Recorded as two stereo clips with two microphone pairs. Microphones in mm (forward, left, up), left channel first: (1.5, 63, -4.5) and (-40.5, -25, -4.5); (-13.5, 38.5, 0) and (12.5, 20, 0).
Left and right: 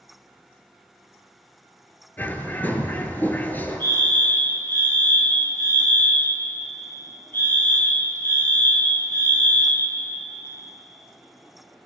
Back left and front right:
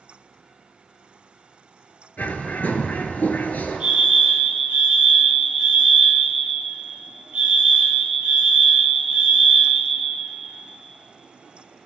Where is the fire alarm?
10° left, 2.5 m.